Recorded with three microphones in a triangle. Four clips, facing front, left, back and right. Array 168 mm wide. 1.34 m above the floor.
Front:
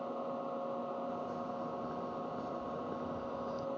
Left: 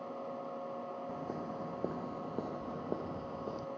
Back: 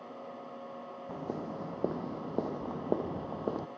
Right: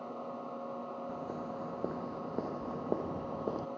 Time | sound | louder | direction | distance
1.1 | footsteps | right 1 dB, back 1 dB | 170° left | ?